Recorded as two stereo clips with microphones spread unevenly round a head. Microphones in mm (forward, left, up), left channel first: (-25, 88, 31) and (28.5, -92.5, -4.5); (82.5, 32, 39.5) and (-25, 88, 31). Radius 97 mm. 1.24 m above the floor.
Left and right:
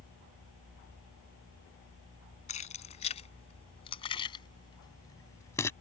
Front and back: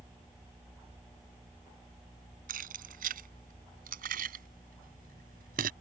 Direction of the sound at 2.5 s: 160° left.